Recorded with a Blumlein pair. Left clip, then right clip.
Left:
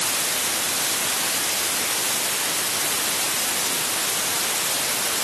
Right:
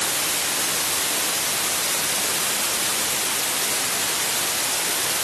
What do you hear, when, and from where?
Only background noise.